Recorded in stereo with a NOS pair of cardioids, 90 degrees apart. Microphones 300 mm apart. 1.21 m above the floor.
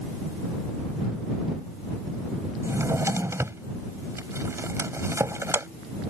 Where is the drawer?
10° right.